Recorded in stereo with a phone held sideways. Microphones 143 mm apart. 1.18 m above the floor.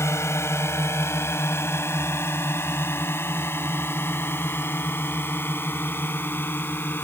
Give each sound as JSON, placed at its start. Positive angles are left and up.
{"t": 0.0, "sound": "a drone", "side_deg": 20}